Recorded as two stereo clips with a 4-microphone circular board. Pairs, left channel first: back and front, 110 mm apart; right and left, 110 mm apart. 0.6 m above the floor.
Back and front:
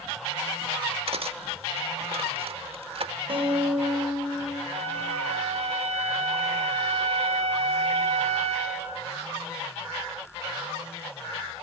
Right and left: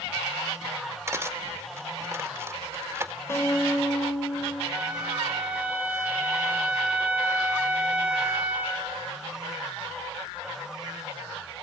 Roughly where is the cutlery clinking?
Ahead left.